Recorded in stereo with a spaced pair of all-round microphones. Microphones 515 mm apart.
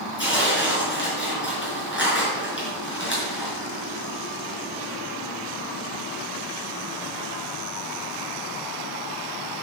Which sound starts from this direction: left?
Tearing paper, at 0.2 s.